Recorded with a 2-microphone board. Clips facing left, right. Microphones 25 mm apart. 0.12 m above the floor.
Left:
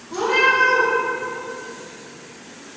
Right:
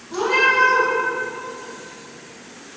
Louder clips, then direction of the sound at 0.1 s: Even; 5° right (ahead or behind).